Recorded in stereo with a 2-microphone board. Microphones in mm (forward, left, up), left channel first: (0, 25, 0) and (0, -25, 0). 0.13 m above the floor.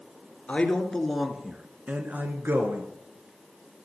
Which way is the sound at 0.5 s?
20° left (ahead or behind).